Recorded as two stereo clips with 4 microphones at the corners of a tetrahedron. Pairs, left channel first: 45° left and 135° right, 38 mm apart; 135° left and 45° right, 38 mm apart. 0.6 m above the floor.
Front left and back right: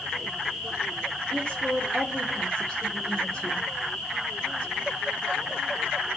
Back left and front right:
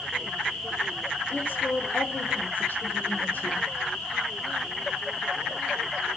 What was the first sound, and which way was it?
A woman speaking, 105° left.